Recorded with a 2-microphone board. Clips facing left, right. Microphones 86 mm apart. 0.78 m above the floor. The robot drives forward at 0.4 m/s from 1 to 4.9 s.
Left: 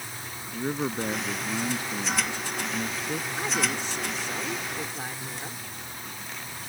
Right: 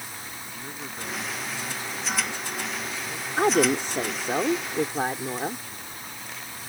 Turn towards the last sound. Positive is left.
turn(degrees=-55)  # may be behind; listen again after turning